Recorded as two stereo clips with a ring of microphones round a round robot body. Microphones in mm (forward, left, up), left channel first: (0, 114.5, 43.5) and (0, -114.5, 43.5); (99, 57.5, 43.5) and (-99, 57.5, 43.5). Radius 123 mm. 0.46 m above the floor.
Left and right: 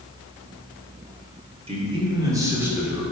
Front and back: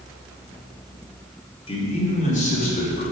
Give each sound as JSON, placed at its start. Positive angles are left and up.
{"t": 1.7, "sound": "a man speaking", "azimuth_deg": -45, "distance_m": 1.7}